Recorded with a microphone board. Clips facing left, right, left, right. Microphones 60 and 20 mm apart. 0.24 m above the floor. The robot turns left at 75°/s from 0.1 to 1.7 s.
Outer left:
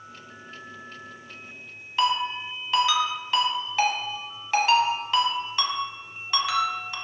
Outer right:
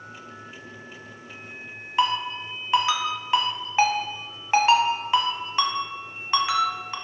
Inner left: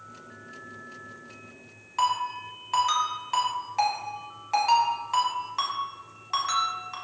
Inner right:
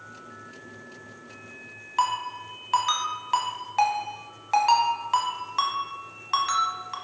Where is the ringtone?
25° right (ahead or behind), 1.0 m.